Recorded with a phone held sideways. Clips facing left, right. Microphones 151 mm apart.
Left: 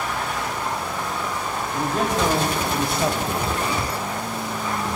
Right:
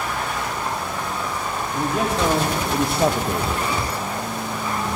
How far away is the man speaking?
About 3 m.